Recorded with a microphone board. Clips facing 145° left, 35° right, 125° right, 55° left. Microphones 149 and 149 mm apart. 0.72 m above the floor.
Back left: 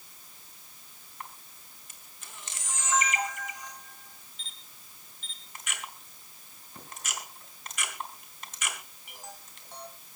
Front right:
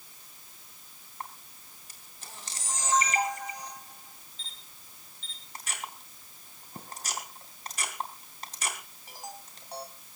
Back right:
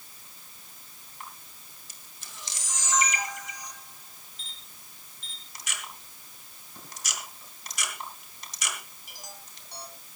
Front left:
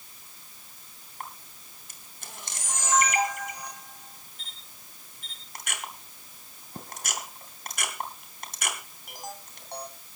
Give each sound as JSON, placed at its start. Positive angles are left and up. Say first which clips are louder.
{"t": 1.2, "sound": "a camera shutter", "louder": "front right 3 dB, front left 4 dB", "azimuth_deg": 20, "distance_m": 3.0}